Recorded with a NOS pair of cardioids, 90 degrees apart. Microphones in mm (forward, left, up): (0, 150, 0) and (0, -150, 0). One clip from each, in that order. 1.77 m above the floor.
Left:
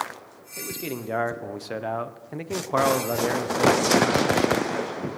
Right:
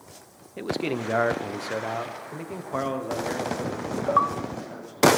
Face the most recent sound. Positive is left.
turn(degrees=60)